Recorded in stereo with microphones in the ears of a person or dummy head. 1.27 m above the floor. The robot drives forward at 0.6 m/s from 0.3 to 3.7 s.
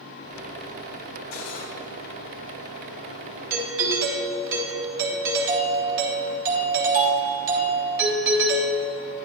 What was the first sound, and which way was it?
Cutlery clinking, 55° left (ahead or behind).